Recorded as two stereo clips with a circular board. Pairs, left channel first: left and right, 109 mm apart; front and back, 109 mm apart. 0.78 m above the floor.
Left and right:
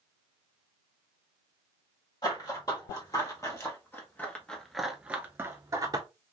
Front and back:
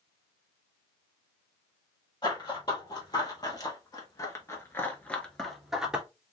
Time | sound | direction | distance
2.2 | running footsteps | 45° left | 1.6 m